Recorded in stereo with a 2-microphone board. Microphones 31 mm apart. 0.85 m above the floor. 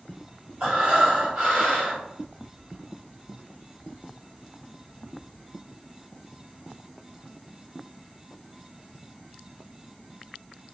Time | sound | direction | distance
0.6 | breathing | 40° right (ahead or behind) | 1.8 m